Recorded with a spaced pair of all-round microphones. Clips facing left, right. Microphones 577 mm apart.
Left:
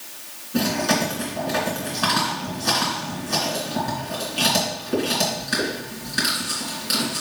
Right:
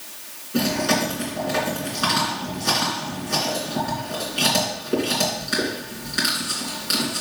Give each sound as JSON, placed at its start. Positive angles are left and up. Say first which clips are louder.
{"t": 0.5, "sound": "chewing", "louder": "even", "side_deg": 15, "distance_m": 3.0}